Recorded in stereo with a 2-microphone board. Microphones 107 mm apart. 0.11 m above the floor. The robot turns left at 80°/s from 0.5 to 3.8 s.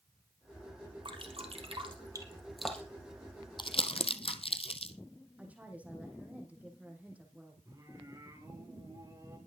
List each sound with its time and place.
1.1 s dripping: 50° right (ahead or behind), 3 m; by 3.1 s 35° left (ahead or behind), 3 m
3.6 s crumpling: 50° left (ahead or behind), 1.1 m; by 4.9 s 60° left (ahead or behind), 1.1 m
5.4 s a woman speaking: 15° right (ahead or behind), 5.5 m
7.7 s singing: 35° right (ahead or behind), 5 m